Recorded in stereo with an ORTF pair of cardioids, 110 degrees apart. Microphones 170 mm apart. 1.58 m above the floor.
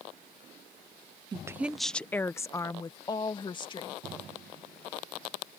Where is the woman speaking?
25° right; by 4.0 s 30° left.